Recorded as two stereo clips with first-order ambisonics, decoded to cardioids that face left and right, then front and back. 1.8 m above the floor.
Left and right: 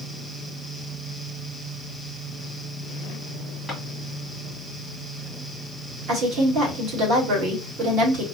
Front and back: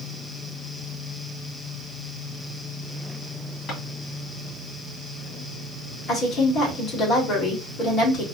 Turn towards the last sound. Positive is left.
turn(degrees=-55)